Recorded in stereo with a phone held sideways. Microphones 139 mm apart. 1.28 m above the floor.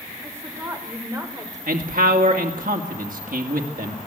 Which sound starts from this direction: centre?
A woman speaking, at 0.2 s.